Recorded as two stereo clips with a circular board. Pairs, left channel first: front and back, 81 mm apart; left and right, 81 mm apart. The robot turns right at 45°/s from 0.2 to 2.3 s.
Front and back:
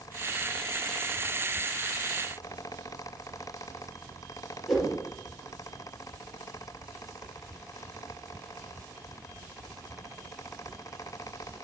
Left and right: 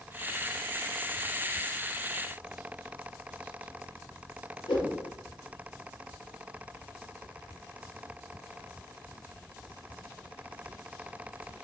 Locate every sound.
4.7 s a whoosh: 95° left, 3 m